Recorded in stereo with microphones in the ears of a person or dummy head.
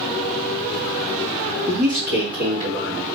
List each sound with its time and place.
1.7 s a man speaking: 35° right (ahead or behind), 0.6 m; by 3.2 s 65° right (ahead or behind), 1.4 m